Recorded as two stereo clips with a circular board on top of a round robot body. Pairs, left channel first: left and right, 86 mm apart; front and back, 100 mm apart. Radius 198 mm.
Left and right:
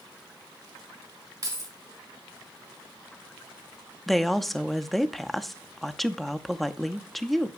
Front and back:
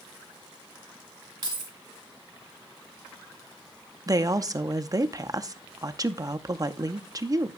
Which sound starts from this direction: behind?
A woman speaking, at 4.1 s.